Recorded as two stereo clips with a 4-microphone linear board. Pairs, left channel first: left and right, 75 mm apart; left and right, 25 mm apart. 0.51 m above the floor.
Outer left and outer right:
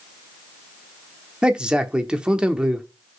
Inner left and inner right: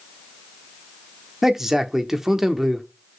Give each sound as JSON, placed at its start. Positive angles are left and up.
{"t": 1.4, "sound": "a man speaking", "side_deg": -10, "distance_m": 0.9}